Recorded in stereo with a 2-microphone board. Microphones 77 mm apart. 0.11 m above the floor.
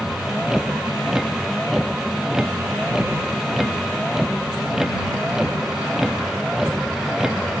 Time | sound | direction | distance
0.0 | a vehicle | 5° right (ahead or behind) | ?